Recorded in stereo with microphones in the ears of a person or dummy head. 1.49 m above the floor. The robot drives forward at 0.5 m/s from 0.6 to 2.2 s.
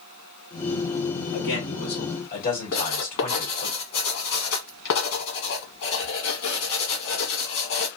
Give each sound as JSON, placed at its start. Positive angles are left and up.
{"t": 1.3, "sound": "a man speaking", "side_deg": 60, "distance_m": 2.0}
{"t": 2.7, "sound": "writing", "side_deg": 70, "distance_m": 1.3}